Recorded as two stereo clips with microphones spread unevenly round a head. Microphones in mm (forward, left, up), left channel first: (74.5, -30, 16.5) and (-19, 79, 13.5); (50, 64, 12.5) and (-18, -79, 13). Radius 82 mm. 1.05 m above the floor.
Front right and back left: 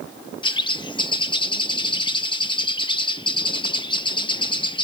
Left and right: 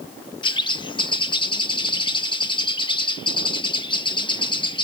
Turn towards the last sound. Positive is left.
turn(degrees=5)